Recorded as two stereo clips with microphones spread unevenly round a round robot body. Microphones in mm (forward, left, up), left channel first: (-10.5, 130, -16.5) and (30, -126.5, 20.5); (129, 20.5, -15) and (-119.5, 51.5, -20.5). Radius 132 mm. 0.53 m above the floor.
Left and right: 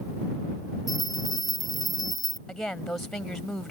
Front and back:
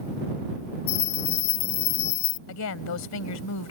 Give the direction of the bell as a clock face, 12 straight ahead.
12 o'clock.